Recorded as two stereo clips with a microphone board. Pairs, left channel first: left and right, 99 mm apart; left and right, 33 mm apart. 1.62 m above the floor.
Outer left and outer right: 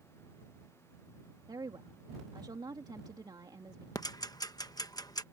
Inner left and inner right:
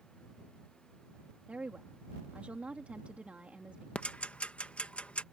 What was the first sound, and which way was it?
A woman speaking, 45° right (ahead or behind).